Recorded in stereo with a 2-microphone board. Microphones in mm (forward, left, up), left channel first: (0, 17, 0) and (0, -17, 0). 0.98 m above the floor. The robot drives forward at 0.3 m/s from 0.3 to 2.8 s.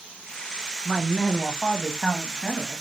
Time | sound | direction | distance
0.8 | a man speaking | 5° left (ahead or behind) | 1.1 m